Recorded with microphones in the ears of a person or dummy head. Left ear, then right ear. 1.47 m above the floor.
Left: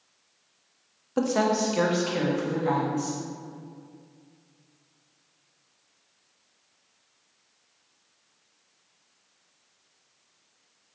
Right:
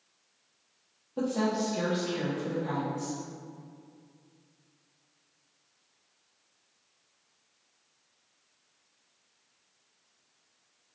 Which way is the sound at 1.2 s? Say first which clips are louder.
Left 6 dB; 55° left (ahead or behind).